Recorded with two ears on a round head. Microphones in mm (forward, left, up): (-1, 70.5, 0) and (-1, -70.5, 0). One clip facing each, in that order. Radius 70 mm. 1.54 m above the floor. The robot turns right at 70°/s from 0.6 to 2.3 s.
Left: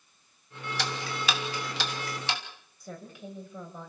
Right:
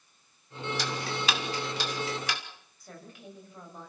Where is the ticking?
50° left (ahead or behind), 3 m; by 2.4 s 25° left (ahead or behind), 3 m.